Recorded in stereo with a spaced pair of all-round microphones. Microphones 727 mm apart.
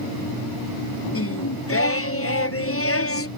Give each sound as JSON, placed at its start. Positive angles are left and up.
{"t": 1.1, "sound": "singing", "side_deg": 20}